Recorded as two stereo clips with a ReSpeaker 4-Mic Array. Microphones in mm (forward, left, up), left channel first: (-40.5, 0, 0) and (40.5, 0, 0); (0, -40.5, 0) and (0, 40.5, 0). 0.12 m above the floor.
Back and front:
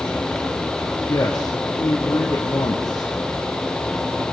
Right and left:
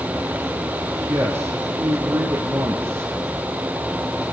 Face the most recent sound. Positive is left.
turn(degrees=135)